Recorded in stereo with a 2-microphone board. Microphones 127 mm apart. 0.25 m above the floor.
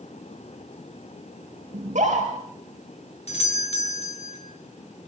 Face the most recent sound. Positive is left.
turn(degrees=55)  # may be behind; listen again after turning